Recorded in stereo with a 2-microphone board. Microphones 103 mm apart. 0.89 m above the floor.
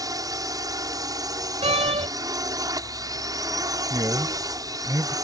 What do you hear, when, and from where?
0.0 s a drone: 35° right (ahead or behind)
1.6 s a door slam: 75° right (ahead or behind)
3.9 s a man speaking: 35° right (ahead or behind)